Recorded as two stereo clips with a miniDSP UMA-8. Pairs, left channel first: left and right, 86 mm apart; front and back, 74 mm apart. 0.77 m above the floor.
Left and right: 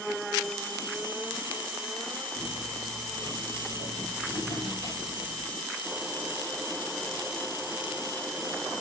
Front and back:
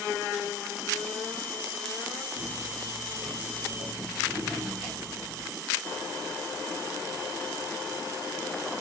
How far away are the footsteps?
About 7 m.